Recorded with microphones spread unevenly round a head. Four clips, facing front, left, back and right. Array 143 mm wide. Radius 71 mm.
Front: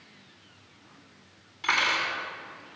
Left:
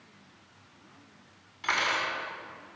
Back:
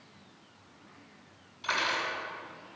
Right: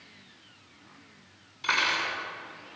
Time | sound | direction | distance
1.6 | cutlery clinking | 25° left | 5.5 m